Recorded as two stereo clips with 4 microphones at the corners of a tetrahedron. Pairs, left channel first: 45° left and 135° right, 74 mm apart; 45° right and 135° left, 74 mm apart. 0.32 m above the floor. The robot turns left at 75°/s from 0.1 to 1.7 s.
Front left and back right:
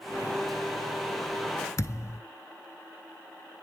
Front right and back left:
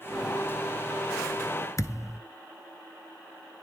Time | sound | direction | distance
1.8 | a thud | straight ahead | 0.5 m